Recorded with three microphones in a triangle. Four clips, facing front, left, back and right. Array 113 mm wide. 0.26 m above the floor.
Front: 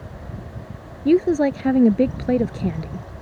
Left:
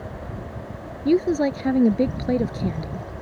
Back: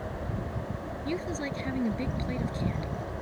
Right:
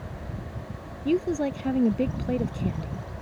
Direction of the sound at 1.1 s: 20° left.